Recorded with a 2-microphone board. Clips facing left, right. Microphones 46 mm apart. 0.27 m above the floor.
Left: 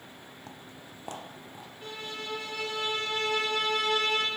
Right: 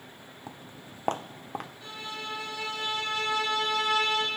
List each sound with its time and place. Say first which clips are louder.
0.5 s footsteps: right 4 dB; 15° right (ahead or behind), 0.6 m; by 1.7 s 65° right (ahead or behind), 1.0 m
1.8 s a violin: even; 45° left (ahead or behind), 5.5 m